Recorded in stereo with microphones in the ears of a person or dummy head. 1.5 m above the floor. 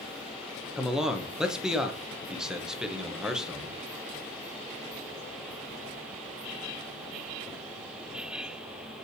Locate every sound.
0.8 s a man speaking: 5° right (ahead or behind), 0.9 m